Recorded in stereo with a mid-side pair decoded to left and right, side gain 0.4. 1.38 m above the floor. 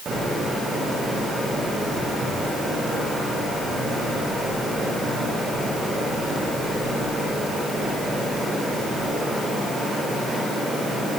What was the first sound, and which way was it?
Only background noise.